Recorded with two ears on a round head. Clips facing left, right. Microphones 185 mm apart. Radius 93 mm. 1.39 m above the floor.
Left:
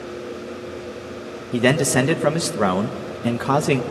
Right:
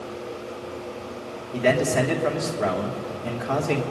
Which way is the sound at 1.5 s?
70° left (ahead or behind).